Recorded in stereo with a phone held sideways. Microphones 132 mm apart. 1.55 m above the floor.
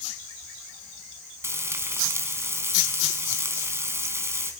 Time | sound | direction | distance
1.4 | frying | 20° right (ahead or behind) | 3 m